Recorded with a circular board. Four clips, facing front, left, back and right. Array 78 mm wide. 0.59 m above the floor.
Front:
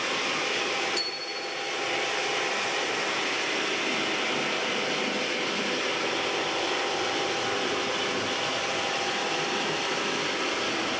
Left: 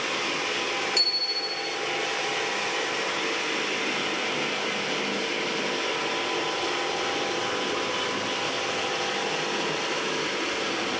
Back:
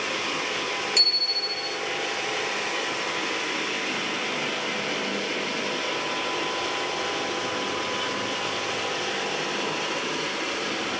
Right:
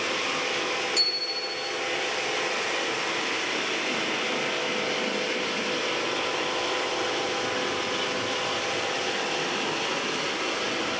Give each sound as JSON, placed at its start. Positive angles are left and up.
{"t": 1.0, "sound": "a bicycle bell", "azimuth_deg": 165, "distance_m": 8.0}